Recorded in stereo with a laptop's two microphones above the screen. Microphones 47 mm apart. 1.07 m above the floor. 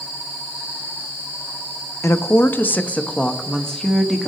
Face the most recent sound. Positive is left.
turn(degrees=10)  # may be behind; listen again after turning